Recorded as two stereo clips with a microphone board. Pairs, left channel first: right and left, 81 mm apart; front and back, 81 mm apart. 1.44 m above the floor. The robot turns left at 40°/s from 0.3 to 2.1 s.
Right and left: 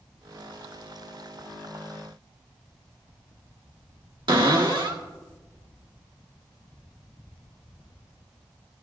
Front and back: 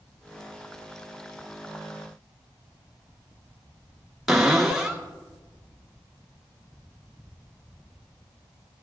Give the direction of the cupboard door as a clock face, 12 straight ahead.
9 o'clock.